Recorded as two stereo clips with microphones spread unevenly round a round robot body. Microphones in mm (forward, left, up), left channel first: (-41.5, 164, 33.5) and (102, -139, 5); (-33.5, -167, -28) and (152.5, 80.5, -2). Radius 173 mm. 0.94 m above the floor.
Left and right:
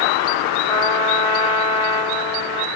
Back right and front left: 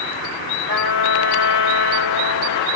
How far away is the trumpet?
About 1.3 m.